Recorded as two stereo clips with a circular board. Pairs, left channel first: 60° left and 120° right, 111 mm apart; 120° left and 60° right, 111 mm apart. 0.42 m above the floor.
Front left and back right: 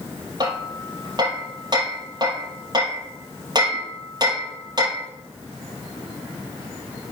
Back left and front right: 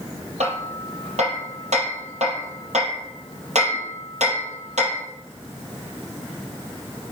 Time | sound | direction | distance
0.4 | hammering | 65° right | 3.5 m